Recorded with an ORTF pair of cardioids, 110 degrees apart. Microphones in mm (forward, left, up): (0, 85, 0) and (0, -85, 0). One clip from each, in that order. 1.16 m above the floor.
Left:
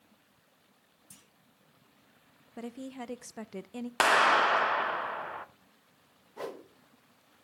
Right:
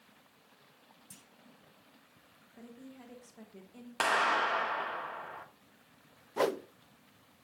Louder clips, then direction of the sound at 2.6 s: Left 11 dB; 65° left.